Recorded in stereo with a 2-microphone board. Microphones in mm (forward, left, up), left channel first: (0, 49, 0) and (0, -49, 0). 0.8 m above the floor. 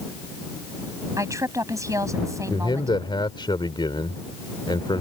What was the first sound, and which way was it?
A woman speaking, 35° right (ahead or behind).